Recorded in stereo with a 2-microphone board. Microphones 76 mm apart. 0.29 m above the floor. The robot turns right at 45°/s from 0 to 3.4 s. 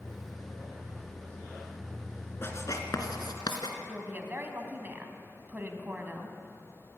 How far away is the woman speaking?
About 2.5 m.